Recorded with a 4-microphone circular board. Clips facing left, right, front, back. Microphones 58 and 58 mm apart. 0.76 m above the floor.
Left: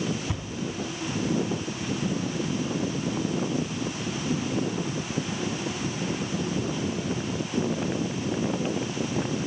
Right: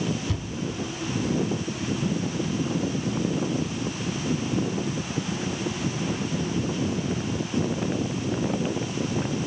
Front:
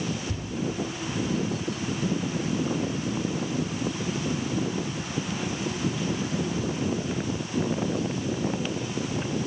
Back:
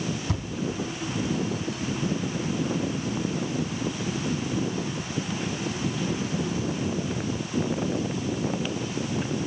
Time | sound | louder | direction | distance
0.3 | a thud | right 2 dB, back 3 dB | 160° left | 3 m